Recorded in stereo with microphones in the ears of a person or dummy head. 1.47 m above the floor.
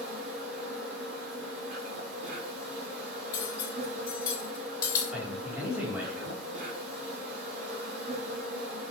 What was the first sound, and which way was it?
An insect, 60° right (ahead or behind).